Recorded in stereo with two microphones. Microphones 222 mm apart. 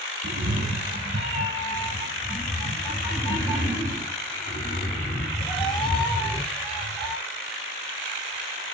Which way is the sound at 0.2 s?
50° right (ahead or behind).